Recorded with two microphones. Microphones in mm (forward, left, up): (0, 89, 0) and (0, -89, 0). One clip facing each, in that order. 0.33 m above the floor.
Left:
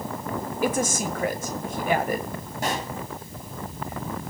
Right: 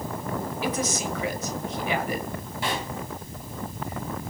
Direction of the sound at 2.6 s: 45° left (ahead or behind).